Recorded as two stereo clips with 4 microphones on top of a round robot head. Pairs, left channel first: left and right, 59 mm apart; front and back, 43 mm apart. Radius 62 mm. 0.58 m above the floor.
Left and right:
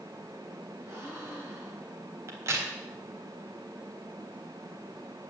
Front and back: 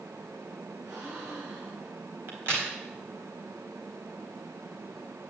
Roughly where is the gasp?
Behind right.